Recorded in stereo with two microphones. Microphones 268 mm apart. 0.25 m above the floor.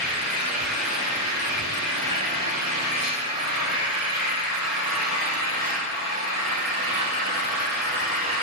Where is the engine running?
25° right (ahead or behind), 1.8 m.